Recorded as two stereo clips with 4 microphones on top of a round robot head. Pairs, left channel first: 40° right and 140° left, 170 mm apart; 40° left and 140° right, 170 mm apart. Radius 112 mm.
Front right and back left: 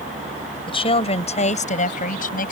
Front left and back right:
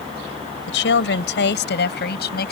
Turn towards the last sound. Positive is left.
turn(degrees=5)